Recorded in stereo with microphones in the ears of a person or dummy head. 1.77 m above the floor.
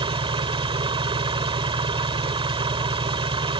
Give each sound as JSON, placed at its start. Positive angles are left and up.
{"t": 0.0, "sound": "an engine running", "side_deg": -25}